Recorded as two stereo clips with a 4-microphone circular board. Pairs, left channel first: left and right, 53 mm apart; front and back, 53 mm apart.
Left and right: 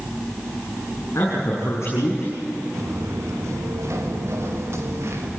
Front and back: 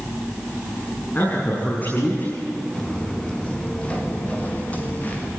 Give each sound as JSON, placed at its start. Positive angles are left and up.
{"t": 1.1, "sound": "a man speaking", "azimuth_deg": 60, "distance_m": 8.0}
{"t": 2.7, "sound": "footsteps", "azimuth_deg": -75, "distance_m": 5.0}